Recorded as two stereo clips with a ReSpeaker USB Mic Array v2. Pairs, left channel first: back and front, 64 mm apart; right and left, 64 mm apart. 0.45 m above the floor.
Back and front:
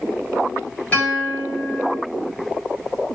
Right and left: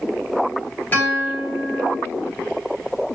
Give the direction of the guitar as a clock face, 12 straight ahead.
4 o'clock.